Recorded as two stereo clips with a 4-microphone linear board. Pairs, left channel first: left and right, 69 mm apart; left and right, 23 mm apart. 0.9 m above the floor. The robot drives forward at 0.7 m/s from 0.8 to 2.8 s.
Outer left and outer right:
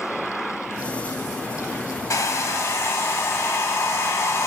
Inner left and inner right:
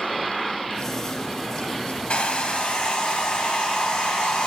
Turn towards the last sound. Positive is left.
turn(degrees=45)  # may be behind; listen again after turning